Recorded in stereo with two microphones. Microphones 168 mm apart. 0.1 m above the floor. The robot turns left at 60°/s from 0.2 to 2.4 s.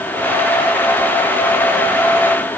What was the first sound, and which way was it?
Only background noise.